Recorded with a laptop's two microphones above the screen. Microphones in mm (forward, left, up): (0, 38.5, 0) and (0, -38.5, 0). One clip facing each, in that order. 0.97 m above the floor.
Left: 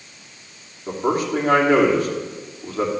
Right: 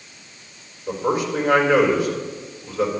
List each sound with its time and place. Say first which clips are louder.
0.9 s a man speaking: left 1 dB; 50° left (ahead or behind), 3 m